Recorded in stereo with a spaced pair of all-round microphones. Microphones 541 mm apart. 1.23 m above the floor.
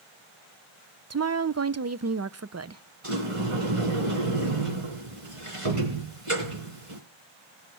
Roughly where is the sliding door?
Right.